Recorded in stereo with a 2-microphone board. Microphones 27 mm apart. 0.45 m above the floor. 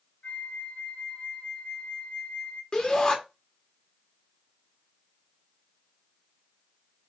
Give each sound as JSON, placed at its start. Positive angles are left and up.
{"t": 0.2, "sound": "a flute", "side_deg": 85, "distance_m": 1.0}
{"t": 2.7, "sound": "a shout", "side_deg": 30, "distance_m": 1.3}